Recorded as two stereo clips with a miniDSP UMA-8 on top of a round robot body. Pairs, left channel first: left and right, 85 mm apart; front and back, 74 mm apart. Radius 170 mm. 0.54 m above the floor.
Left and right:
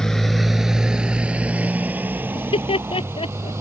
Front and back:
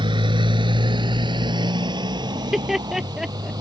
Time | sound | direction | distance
0.0 | a motorcycle | 175° left | ?
2.4 | laughter | 95° left | ?